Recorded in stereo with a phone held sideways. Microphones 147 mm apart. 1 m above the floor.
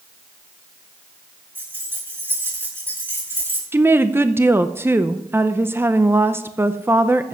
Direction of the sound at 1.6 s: 15° right (ahead or behind).